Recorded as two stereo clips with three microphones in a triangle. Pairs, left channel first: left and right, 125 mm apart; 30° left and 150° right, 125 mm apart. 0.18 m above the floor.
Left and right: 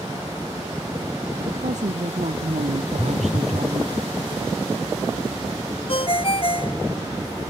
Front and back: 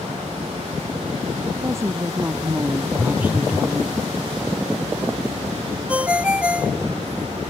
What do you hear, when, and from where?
1.4 s a woman speaking: 85° right; by 4.0 s 65° right
3.0 s a phone buzzing: 85° left
5.9 s a ringtone: 130° left